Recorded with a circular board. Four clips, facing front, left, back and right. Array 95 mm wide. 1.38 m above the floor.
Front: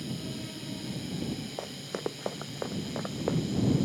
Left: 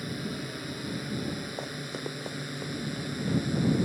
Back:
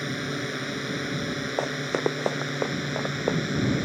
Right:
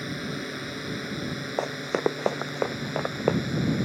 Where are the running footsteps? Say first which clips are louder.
Right 10 dB, back 9 dB; 135° right; by 3.4 s 110° right.